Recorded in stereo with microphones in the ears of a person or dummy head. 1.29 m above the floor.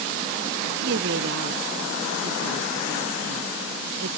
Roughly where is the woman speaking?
Right.